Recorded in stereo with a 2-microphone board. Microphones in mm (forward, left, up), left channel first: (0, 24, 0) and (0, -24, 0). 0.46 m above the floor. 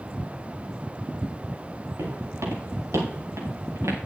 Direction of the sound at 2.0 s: 85° right.